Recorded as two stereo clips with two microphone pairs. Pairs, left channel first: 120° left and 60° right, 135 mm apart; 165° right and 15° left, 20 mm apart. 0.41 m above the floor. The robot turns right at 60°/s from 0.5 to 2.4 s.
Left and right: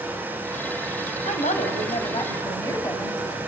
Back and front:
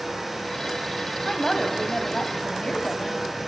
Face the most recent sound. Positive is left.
turn(degrees=180)